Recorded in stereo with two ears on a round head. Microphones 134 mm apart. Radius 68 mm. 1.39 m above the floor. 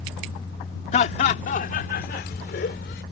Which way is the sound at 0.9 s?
45° left (ahead or behind).